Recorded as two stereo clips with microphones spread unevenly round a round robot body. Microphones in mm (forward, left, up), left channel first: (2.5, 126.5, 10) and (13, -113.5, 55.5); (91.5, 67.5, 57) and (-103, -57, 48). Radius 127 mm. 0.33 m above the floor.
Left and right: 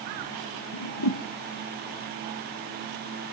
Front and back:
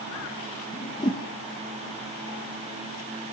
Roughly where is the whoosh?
Left.